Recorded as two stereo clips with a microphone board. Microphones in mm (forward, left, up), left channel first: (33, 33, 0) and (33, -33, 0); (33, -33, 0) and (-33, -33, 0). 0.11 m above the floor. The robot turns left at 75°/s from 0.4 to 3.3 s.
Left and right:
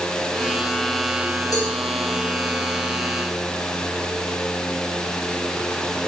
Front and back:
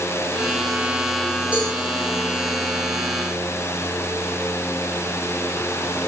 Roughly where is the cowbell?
Left.